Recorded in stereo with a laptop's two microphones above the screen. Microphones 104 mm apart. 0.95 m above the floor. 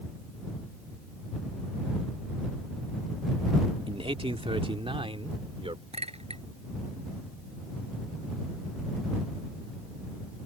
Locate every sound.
3.9 s a man speaking: 60° right (ahead or behind)
5.9 s a clink: 75° right (ahead or behind)